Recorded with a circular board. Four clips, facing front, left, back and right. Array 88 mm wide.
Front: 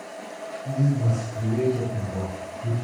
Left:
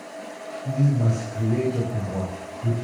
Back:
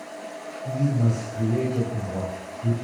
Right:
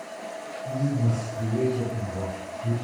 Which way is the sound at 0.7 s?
130° left.